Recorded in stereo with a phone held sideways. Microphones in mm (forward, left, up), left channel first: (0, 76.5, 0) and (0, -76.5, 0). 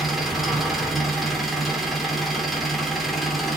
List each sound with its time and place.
0.0 s an engine running: centre (ahead or behind), 2.5 m